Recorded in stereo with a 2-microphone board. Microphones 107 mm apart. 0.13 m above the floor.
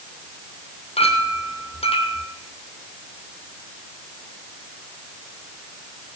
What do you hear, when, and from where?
1.0 s a clink: 70° left (ahead or behind), 3 m